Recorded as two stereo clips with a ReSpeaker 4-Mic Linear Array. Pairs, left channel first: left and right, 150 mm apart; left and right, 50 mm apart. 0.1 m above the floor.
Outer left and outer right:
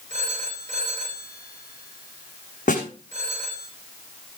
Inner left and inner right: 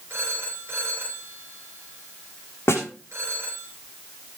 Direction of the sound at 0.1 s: 45° right (ahead or behind).